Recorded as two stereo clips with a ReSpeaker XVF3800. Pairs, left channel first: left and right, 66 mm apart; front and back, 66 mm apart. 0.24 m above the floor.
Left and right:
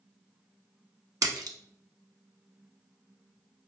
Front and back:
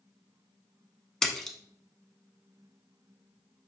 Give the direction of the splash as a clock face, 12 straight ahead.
3 o'clock.